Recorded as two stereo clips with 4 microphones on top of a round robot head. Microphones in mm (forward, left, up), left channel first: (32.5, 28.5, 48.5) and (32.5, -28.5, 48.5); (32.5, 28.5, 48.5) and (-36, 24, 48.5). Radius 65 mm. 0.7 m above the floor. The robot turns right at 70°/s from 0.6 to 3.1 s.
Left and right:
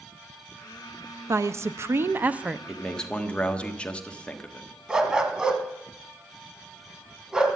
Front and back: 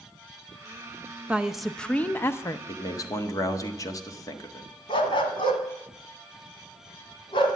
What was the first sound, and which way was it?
A woman speaking, 105° right.